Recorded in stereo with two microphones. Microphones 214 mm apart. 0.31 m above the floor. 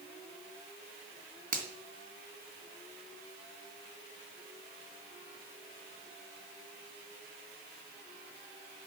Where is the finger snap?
40° right (ahead or behind), 2.5 m.